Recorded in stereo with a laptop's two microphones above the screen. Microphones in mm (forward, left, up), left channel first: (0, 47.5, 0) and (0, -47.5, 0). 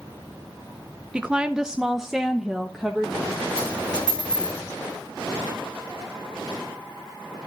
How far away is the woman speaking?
About 0.5 m.